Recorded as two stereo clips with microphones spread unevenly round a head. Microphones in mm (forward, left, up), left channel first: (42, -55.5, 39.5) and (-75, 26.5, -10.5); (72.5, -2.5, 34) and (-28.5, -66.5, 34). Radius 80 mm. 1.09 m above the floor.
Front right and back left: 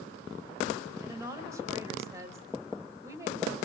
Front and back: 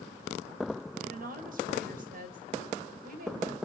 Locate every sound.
1.0 s a woman speaking: 145° right, 4 m